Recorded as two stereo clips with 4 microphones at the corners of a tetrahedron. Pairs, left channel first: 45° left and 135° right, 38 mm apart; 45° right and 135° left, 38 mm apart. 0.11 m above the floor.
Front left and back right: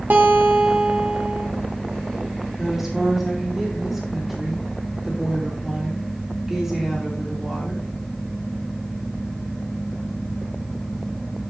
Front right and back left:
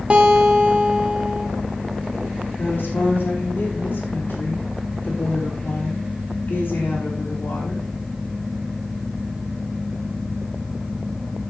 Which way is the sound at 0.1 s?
165° right.